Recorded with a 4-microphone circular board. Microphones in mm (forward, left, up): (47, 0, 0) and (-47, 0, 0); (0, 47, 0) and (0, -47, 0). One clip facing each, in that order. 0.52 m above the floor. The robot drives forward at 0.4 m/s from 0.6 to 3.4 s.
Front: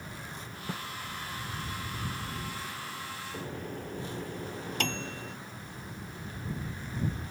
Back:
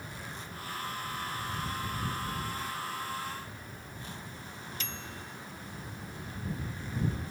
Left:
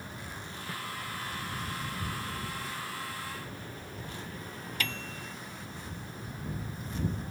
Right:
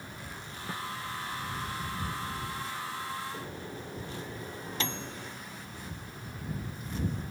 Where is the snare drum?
25° right.